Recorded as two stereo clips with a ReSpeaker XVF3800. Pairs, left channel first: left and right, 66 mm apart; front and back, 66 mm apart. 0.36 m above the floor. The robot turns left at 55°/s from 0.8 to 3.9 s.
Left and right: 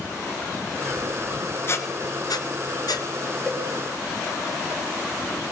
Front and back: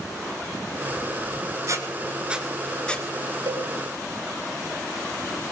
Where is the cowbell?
165° left, 1.2 m; by 3.7 s 150° left, 1.2 m.